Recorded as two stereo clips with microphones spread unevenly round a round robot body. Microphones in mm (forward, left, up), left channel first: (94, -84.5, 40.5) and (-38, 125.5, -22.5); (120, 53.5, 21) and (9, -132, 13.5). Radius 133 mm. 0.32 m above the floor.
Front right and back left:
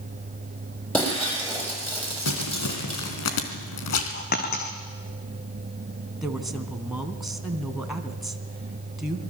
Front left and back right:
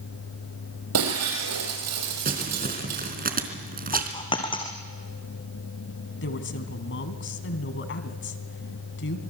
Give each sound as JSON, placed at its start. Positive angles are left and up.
{"t": 0.9, "sound": "breaking glass", "azimuth_deg": -145, "distance_m": 6.5}
{"t": 2.2, "sound": "crumpling", "azimuth_deg": -75, "distance_m": 3.5}
{"t": 3.9, "sound": "a dropped coin", "azimuth_deg": -10, "distance_m": 4.0}
{"t": 6.2, "sound": "a woman speaking", "azimuth_deg": 40, "distance_m": 2.5}